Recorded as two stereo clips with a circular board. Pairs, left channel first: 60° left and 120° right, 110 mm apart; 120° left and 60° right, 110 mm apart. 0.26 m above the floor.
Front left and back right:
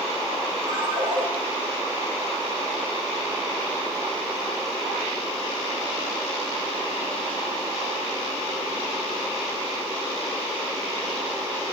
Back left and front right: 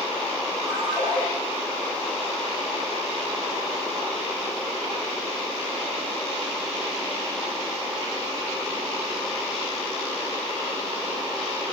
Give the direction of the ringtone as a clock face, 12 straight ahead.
5 o'clock.